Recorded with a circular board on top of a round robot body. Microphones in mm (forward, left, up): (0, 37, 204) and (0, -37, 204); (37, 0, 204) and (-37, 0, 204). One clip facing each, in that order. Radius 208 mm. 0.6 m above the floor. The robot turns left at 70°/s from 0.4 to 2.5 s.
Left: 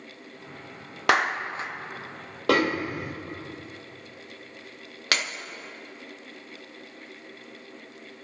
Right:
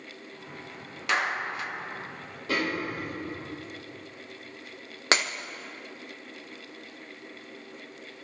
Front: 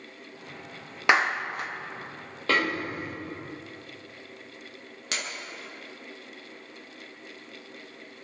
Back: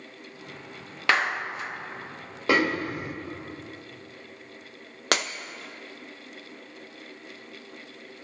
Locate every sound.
1.1 s a clap: 70° left, 1.8 m; by 1.7 s 25° left, 1.8 m
2.5 s a snare drum: 105° left, 1.8 m
5.1 s breaking glass: 155° right, 1.2 m